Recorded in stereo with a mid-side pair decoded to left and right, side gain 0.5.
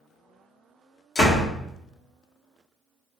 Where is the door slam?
55° left, 1.9 m.